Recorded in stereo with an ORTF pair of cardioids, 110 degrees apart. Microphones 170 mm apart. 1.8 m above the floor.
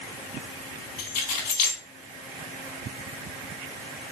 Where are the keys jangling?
70° left, 3 m.